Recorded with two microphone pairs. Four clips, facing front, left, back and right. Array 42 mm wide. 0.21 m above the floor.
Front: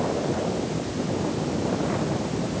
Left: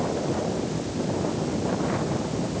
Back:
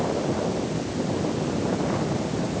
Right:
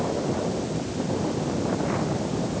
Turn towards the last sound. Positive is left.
No sound to turn to.